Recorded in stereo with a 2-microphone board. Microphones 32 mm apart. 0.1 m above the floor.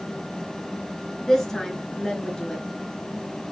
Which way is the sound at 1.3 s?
15° left (ahead or behind).